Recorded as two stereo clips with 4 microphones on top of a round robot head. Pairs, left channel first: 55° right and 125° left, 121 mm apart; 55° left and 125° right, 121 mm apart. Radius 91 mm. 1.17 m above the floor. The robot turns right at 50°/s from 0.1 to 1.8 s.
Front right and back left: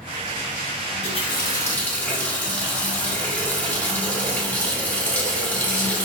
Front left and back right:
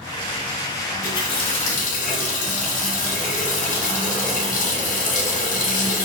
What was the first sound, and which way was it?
A running tap, 20° right.